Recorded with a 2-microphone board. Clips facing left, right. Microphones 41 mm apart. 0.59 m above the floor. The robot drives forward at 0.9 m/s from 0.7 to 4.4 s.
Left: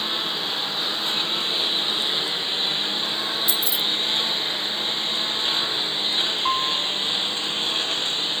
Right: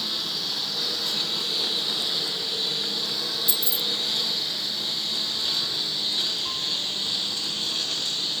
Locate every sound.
0.0 s a lawn mower: 35° left (ahead or behind)
3.5 s keys jangling: 45° right (ahead or behind); by 3.8 s 50° right (ahead or behind)
6.5 s a piano: 75° left (ahead or behind)